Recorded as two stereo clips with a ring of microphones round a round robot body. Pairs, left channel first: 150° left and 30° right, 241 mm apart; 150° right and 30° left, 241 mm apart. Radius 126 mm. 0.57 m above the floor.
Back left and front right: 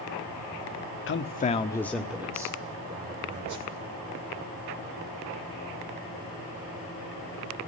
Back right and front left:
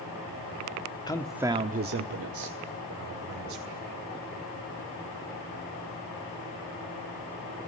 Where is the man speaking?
140° left, 1.3 m; by 3.8 s 35° left, 4 m.